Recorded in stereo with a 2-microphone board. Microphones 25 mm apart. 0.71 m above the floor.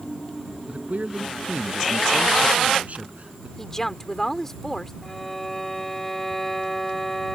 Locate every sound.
0.7 s a man speaking: 55° right (ahead or behind)
3.6 s a woman speaking: 15° left (ahead or behind)
5.0 s a violin: 10° left (ahead or behind)